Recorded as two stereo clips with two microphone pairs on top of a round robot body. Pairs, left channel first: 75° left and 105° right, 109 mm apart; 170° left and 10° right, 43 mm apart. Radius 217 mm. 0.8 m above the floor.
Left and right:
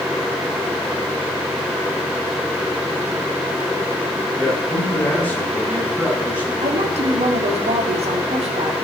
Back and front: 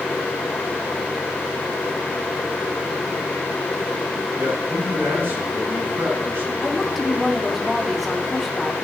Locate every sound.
4.3 s a man speaking: straight ahead, 8 m
6.6 s a woman speaking: 100° right, 2.5 m